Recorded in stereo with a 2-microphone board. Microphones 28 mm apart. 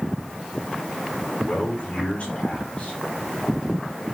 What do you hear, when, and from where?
1.4 s a man speaking: 50° left (ahead or behind), 5.5 m